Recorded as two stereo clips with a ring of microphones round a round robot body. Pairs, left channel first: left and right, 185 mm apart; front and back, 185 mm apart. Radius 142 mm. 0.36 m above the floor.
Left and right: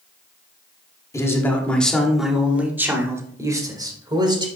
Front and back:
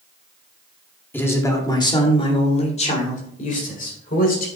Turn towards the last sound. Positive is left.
turn(degrees=-30)